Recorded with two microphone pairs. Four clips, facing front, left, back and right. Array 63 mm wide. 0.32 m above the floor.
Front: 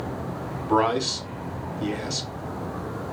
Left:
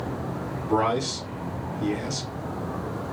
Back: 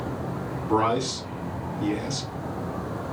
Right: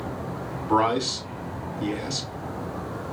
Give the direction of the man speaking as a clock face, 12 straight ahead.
2 o'clock.